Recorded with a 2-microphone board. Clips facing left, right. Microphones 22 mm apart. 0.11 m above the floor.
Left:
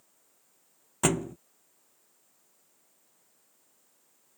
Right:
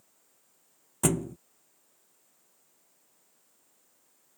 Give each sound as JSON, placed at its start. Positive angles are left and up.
{"t": 1.0, "sound": "a thud", "side_deg": 25}